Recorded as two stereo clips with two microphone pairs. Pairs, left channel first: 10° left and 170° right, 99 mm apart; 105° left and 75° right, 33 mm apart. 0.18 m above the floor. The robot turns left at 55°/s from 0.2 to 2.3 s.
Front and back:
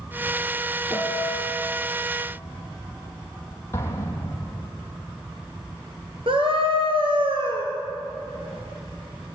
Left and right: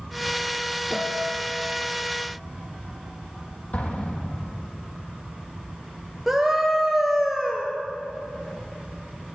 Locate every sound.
0.9 s a piano: 110° right, 2 m; by 1.5 s 145° right, 2 m
3.7 s an explosion: 70° left, 4.5 m
6.3 s a scream: 160° right, 3.5 m